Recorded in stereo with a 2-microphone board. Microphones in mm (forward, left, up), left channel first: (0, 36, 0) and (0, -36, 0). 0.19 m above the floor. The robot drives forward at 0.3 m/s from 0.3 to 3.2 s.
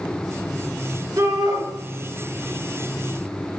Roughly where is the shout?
Right.